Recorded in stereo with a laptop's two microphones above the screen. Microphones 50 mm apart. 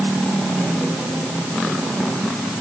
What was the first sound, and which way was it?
Only background noise.